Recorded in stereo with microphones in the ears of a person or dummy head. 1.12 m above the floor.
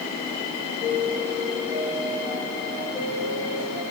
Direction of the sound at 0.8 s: 15° right (ahead or behind).